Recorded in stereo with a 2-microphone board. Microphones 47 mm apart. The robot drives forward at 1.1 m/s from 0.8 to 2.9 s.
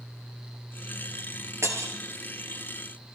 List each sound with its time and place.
1.6 s breaking glass: 75° right (ahead or behind), 3 m; by 1.9 s 65° right (ahead or behind), 3 m